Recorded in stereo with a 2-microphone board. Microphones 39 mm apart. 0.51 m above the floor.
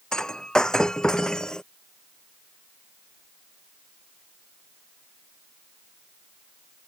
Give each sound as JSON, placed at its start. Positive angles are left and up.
{"t": 0.1, "sound": "breaking glass", "side_deg": 20}